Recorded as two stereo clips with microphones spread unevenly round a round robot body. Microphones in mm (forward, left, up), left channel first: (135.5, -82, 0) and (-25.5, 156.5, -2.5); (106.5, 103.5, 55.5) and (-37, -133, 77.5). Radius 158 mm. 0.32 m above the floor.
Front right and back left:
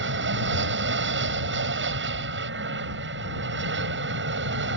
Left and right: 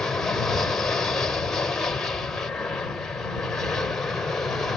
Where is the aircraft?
140° left.